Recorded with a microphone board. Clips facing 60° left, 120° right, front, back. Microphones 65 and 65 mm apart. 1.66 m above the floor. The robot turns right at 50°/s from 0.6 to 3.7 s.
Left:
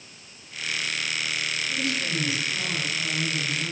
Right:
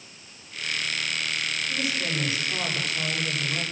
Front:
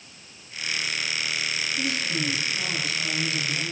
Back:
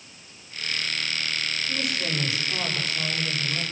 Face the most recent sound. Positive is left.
turn(degrees=-105)